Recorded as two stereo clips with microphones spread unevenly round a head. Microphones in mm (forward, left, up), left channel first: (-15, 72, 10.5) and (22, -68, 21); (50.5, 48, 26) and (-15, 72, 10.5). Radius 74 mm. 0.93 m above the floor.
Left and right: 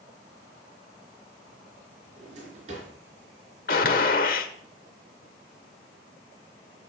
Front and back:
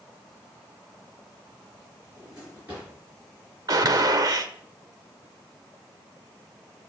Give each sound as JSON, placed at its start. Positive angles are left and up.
{"t": 2.2, "sound": "a drawer", "azimuth_deg": -115, "distance_m": 4.0}
{"t": 3.7, "sound": "a gunshot", "azimuth_deg": 130, "distance_m": 0.9}